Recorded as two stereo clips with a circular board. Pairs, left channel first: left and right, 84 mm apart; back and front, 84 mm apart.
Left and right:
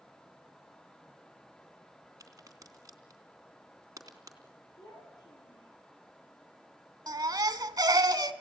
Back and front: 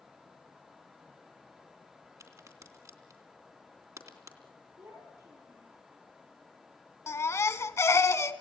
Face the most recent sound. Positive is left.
turn(degrees=-125)